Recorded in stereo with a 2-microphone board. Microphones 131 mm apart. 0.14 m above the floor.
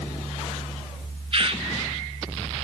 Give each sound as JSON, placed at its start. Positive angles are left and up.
{"t": 1.3, "sound": "a bird", "side_deg": -45, "distance_m": 0.8}